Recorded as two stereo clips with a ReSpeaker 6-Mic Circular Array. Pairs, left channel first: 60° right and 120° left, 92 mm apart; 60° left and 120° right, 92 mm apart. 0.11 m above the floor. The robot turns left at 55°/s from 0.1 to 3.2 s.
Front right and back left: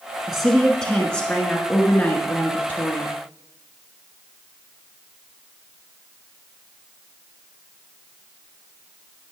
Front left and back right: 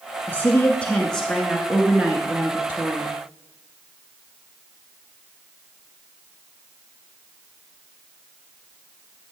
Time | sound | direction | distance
0.3 | a woman speaking | 40° left | 1.1 m